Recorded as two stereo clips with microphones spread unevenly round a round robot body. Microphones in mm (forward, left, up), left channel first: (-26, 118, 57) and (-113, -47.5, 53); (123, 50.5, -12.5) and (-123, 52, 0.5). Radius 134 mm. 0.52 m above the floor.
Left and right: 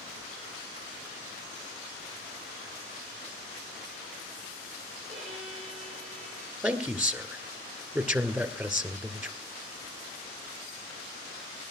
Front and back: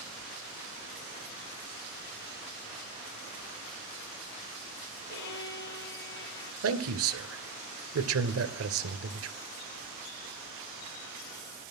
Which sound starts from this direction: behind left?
A man speaking, at 6.6 s.